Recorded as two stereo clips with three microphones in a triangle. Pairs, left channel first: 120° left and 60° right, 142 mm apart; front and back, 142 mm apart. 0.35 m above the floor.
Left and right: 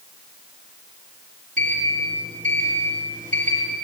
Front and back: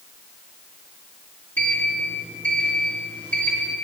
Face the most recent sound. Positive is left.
turn(degrees=-75)